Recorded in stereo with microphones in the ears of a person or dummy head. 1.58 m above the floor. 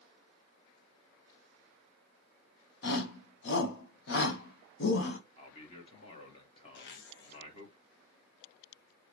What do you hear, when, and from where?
2.8 s a shout: 65° left (ahead or behind), 1.5 m
5.4 s a man speaking: 30° left (ahead or behind), 1.5 m
6.8 s a zipper: 60° left (ahead or behind), 0.7 m